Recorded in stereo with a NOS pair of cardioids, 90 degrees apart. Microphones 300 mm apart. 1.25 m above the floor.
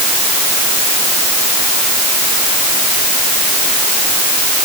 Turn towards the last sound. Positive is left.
No sound to turn to.